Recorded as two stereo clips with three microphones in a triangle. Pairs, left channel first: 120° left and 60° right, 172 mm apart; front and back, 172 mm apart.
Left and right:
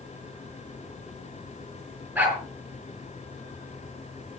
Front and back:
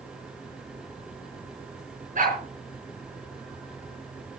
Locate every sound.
2.1 s a dog barking: 140° right, 8 m